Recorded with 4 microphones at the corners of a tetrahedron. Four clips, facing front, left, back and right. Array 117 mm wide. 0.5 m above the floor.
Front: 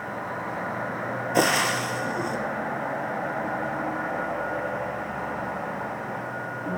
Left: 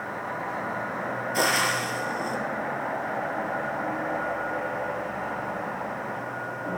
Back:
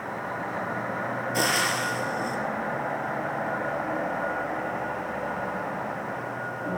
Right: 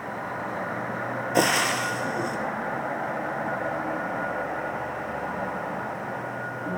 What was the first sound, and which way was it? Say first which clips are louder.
Frying: right 2 dB, front 4 dB; 45° right.